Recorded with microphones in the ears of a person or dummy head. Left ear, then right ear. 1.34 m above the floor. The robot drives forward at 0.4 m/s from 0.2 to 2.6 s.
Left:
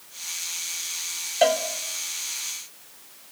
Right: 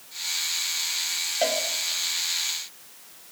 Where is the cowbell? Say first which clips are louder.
Left 6 dB; 35° left (ahead or behind), 1.8 m.